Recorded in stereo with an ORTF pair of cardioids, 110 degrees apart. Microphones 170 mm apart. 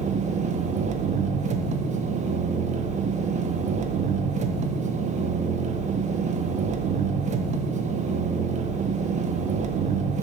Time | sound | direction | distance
0.0 | an engine running | 45° right | 0.7 m